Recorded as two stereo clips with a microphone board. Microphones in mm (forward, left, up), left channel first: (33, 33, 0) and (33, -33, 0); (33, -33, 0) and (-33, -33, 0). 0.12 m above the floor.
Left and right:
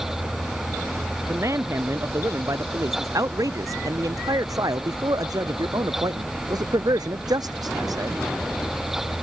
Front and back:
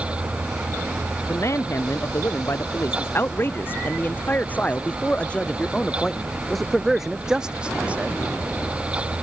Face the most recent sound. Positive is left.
turn(degrees=-110)